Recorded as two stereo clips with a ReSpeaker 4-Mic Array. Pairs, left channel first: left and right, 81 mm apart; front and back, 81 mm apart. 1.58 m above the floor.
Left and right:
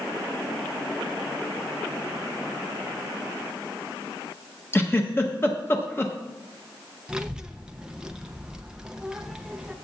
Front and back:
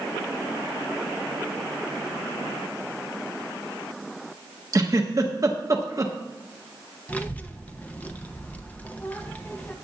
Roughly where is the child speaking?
Ahead right.